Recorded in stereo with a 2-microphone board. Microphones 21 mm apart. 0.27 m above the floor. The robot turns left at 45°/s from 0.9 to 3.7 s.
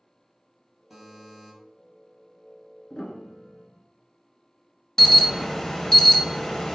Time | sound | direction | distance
0.9 | a buzzer | 5° right (ahead or behind) | 1.4 m
2.9 | a piano | 125° left | 0.5 m
5.0 | an alarm | 25° left (ahead or behind) | 0.6 m